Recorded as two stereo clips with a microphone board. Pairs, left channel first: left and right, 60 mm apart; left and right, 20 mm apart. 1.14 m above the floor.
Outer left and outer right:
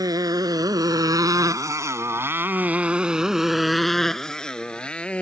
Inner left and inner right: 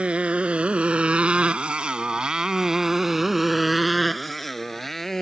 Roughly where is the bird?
No bird in this recording.